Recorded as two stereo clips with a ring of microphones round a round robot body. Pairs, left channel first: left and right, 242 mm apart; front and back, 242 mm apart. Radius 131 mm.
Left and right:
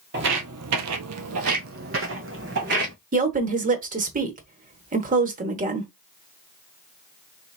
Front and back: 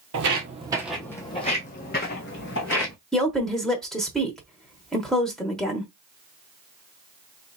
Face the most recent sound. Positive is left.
turn(degrees=-85)